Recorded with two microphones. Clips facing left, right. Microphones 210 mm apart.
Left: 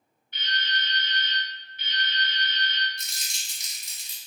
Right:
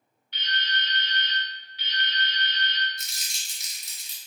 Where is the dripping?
80° right, 0.7 m.